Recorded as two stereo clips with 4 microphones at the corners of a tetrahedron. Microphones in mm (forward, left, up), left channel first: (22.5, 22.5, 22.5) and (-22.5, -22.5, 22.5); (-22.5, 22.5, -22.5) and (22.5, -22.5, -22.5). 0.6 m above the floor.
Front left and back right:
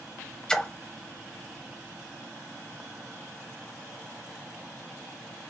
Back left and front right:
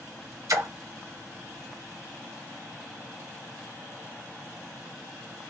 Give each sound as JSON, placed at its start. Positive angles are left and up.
{"t": 0.5, "sound": "a splash", "azimuth_deg": -30, "distance_m": 0.5}